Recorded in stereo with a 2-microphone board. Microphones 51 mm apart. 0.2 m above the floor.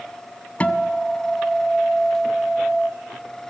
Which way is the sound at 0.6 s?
30° left (ahead or behind).